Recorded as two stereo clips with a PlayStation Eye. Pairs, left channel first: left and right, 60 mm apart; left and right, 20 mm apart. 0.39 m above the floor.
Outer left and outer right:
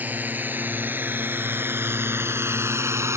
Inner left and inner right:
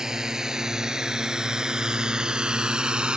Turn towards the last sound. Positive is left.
turn(degrees=-50)  # may be behind; listen again after turning